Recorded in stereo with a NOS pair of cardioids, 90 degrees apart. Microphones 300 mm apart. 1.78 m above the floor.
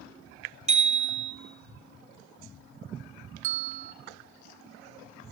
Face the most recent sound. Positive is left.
turn(degrees=-50)